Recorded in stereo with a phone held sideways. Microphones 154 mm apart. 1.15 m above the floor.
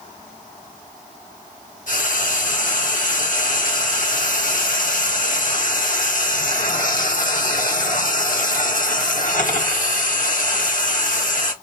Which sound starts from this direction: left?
Frying, at 1.9 s.